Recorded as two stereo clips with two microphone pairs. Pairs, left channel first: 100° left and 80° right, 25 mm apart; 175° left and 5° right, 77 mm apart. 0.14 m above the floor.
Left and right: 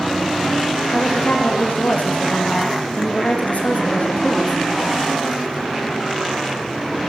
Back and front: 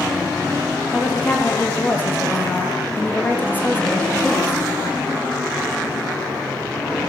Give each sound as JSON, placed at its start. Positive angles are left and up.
{"t": 0.9, "sound": "a woman speaking", "azimuth_deg": 110, "distance_m": 5.5}